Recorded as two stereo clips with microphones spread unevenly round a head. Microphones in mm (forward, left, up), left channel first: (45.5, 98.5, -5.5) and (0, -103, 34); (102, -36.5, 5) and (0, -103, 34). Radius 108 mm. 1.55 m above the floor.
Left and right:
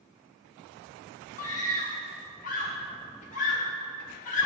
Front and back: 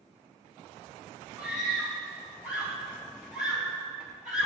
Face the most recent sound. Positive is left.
turn(degrees=130)